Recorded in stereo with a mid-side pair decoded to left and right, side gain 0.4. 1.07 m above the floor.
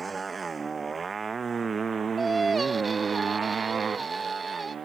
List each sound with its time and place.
0.0 s a motorcycle: 35° right; by 4.8 s 55° right
2.2 s singing: 30° right